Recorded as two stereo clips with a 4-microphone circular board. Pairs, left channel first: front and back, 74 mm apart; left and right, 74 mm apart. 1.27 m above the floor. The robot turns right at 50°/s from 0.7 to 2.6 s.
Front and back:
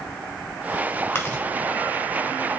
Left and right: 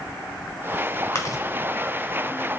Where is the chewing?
50° left, 1.5 m; by 1.4 s 65° left, 1.5 m.